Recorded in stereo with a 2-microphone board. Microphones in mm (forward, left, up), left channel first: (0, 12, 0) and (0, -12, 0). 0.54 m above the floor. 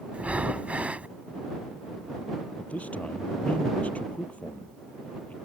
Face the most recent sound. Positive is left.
turn(degrees=75)  # may be behind; listen again after turning